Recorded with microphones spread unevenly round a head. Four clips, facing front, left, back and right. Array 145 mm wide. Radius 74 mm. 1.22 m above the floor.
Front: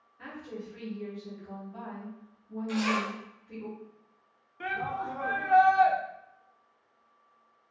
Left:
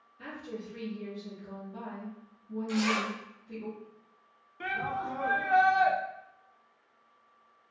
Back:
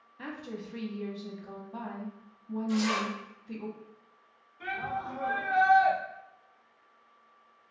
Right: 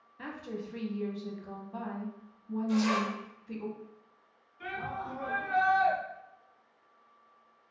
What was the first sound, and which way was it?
A woman speaking, 140° right.